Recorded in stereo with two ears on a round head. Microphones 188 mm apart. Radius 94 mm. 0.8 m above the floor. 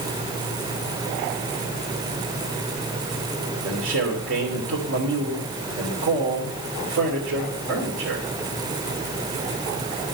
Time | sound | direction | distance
3.6 | a man speaking | 60° right (ahead or behind) | 3 m